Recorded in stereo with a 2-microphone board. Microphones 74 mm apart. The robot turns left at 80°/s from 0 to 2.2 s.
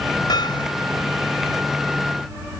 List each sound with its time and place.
0.3 s hammering: 110° left; by 0.7 s 75° left